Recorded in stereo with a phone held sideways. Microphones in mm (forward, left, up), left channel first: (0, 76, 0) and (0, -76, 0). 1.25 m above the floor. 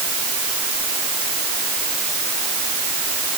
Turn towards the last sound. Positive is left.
No sound to turn to.